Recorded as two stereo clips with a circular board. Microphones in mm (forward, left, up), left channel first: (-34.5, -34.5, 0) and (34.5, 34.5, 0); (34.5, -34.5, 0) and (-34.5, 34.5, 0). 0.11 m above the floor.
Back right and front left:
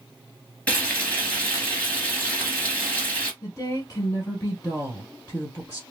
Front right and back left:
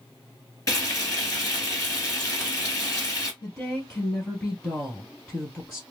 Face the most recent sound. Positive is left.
turn(degrees=-100)